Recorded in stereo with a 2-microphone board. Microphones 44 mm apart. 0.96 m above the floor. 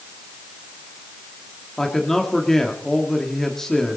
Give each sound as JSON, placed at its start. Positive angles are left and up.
{"t": 1.8, "sound": "a man speaking", "side_deg": 10, "distance_m": 1.6}